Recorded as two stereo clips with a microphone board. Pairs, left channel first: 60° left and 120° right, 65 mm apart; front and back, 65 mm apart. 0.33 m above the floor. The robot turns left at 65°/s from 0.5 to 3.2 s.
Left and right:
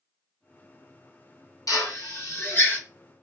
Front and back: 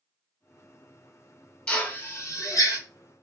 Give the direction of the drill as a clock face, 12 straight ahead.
10 o'clock.